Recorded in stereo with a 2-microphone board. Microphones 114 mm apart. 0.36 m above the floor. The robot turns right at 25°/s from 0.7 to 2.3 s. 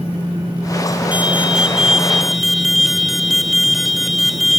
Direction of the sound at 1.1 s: 15° right (ahead or behind).